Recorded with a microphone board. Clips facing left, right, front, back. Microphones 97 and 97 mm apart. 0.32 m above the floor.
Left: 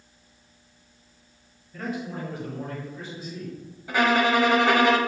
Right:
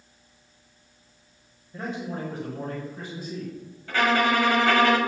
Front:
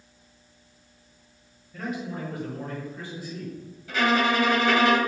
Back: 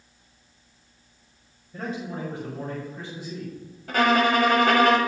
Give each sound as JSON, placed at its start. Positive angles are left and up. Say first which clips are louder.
{"t": 1.7, "sound": "a man speaking", "louder": "even, even", "azimuth_deg": -145, "distance_m": 1.7}
{"t": 3.9, "sound": "a violin", "louder": "left 1 dB, back 3 dB", "azimuth_deg": 160, "distance_m": 1.1}